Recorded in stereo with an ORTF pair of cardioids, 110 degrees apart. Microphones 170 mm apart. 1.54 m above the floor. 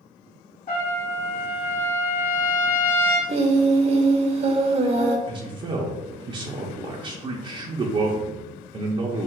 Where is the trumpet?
55° left, 1.4 m.